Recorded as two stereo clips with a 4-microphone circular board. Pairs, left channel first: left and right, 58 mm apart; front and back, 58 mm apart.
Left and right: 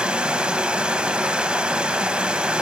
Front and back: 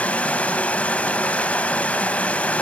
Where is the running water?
35° right, 0.9 m.